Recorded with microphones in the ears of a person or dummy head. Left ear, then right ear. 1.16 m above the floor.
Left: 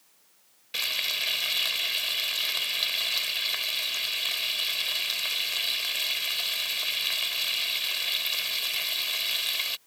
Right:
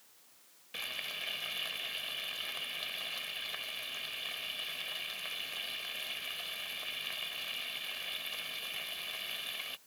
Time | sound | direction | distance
0.7 | frying | 40° left (ahead or behind) | ?